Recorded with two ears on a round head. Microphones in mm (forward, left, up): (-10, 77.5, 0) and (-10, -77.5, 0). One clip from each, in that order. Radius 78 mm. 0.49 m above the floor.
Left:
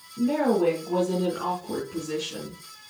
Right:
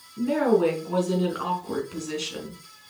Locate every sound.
0.2 s a woman speaking: 35° right (ahead or behind), 5 m; by 2.6 s 50° right (ahead or behind), 4.5 m